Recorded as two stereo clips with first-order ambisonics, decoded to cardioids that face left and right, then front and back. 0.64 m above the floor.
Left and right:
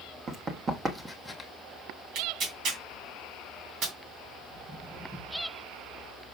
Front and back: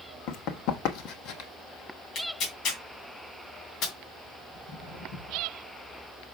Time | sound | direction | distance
0.3 | running footsteps | 30° right | 1.5 m
2.1 | tearing paper | 45° right | 2.5 m
4.5 | footsteps | 15° right | 4.5 m